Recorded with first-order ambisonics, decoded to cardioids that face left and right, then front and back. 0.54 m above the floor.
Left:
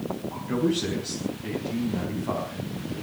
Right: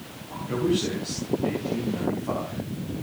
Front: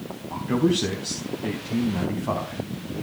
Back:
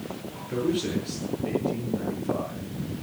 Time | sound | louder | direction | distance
0.3 | a man speaking | right 2 dB, front 5 dB | 5° left | 4 m